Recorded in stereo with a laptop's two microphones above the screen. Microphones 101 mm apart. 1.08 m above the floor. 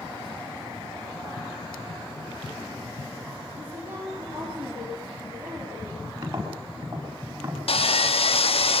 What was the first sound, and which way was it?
A woman speaking, 20° right (ahead or behind).